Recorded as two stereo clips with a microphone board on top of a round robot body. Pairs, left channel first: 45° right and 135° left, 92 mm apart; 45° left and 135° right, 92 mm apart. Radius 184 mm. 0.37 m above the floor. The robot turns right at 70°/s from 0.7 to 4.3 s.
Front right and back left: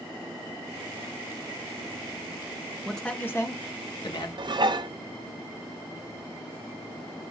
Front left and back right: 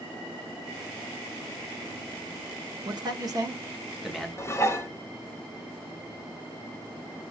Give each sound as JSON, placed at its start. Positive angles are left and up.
{"t": 2.9, "sound": "a man speaking", "azimuth_deg": -135, "distance_m": 1.4}
{"t": 4.4, "sound": "dishes clattering", "azimuth_deg": 105, "distance_m": 1.0}